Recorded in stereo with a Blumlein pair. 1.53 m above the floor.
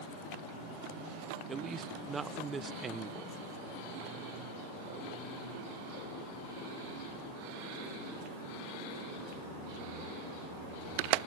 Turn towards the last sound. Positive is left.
turn(degrees=-15)